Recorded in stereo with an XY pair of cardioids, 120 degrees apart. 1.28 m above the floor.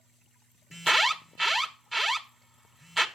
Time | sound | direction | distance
0.7 | an alarm | 5° right | 1.4 m